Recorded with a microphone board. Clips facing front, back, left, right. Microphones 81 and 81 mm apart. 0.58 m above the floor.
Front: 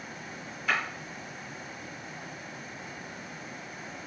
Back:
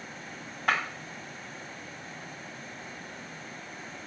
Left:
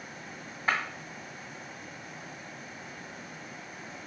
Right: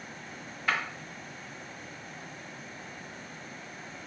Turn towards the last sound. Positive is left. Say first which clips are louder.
# back 2 dB, left 1 dB
turn(degrees=155)